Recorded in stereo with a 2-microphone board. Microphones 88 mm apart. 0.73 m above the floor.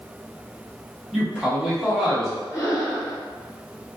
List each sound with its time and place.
1.1 s a man speaking: 5° right (ahead or behind), 1.0 m
2.5 s breathing: 30° left (ahead or behind), 1.6 m